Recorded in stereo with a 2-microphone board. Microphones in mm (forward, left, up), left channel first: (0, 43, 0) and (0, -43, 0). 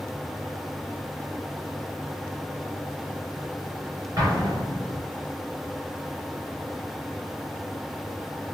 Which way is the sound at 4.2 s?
40° right (ahead or behind).